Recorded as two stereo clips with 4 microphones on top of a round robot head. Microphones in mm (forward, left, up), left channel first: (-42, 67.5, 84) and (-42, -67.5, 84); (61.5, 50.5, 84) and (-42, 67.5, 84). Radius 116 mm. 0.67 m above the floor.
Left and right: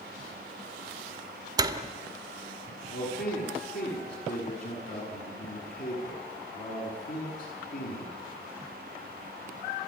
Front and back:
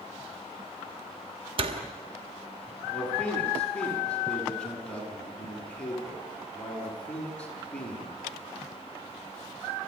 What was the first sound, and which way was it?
A door slam, 150° right.